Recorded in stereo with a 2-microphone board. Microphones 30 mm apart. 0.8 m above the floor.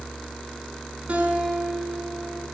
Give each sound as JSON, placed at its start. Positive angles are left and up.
{"t": 1.1, "sound": "a guitar", "side_deg": -50, "distance_m": 6.0}